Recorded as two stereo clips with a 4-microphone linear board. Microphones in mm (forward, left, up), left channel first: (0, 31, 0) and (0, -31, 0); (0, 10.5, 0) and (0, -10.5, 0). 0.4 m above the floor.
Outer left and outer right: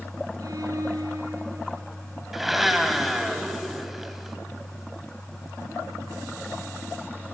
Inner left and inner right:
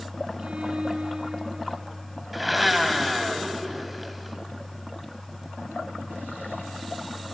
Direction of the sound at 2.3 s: 5° right (ahead or behind).